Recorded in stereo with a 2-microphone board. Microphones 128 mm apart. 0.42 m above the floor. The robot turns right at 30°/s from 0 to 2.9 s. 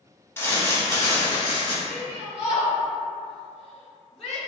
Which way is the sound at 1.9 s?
25° right (ahead or behind).